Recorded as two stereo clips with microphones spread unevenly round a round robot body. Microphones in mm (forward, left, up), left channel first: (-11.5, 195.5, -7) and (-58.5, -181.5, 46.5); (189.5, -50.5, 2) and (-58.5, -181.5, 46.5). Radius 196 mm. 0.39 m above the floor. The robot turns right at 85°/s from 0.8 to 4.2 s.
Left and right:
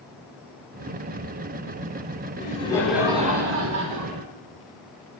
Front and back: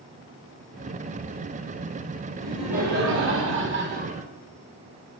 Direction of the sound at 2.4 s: 115° left.